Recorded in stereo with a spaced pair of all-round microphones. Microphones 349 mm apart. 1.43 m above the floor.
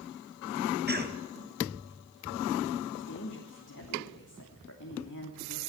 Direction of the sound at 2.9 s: 60° left (ahead or behind).